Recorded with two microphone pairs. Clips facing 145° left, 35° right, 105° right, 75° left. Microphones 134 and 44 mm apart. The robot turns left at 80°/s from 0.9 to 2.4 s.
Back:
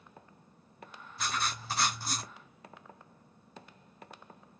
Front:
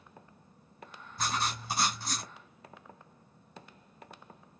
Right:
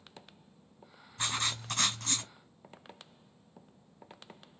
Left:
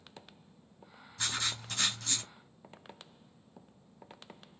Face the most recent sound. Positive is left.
turn(degrees=-155)